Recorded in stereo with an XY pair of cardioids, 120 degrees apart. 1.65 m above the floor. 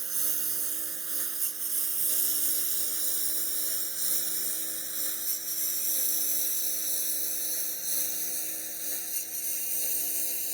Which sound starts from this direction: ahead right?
A lawn mower, at 0.0 s.